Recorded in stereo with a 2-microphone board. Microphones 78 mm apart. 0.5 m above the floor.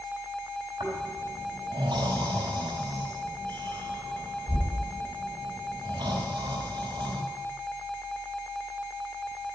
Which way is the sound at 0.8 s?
65° right (ahead or behind).